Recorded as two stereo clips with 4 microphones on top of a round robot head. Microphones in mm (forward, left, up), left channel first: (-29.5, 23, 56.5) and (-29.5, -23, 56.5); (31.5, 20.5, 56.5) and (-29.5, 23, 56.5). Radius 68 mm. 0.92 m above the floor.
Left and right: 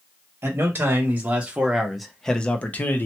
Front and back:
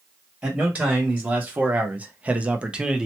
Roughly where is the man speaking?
Behind right.